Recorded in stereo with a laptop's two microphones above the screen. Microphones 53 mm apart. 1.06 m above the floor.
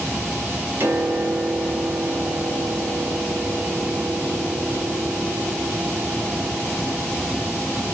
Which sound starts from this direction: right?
A piano, at 0.8 s.